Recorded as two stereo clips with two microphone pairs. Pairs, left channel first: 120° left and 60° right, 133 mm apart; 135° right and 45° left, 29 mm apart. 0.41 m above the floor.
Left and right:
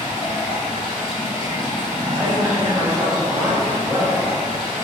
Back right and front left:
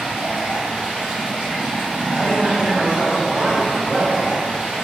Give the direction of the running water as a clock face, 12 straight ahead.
9 o'clock.